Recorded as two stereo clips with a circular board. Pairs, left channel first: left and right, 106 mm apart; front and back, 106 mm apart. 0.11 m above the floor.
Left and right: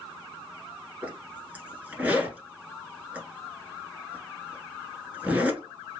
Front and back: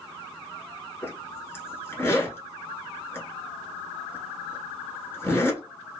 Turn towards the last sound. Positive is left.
turn(degrees=-35)